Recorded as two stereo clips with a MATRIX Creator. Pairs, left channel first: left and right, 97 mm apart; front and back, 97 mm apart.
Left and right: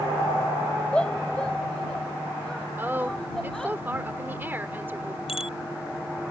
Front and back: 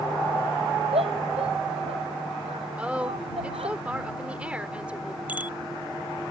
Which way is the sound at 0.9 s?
170° left.